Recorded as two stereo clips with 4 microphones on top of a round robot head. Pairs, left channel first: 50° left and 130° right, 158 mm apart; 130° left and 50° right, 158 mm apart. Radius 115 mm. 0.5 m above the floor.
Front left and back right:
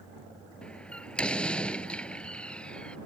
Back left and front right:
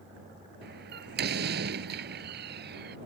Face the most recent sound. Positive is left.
turn(degrees=-35)